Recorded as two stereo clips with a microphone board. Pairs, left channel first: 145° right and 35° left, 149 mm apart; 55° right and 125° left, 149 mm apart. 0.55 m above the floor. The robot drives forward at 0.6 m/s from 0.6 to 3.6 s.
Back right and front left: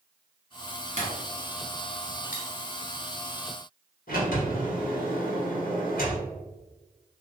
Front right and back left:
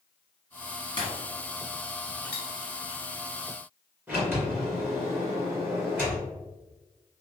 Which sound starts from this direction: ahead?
Breaking glass, at 1.0 s.